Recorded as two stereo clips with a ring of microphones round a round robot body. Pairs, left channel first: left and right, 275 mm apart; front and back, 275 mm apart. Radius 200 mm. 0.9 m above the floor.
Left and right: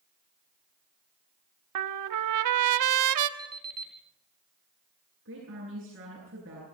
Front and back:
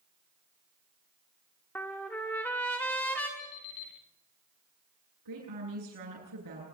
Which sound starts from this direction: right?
A trumpet, at 1.8 s.